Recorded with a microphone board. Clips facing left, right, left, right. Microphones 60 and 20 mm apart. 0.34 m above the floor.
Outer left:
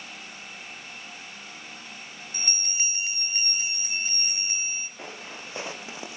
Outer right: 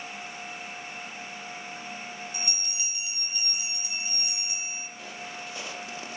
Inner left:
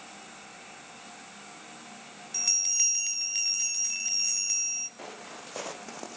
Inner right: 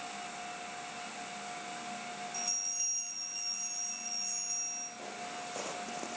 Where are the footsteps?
35° left (ahead or behind), 2 m; by 6.2 s 15° left (ahead or behind), 1.1 m.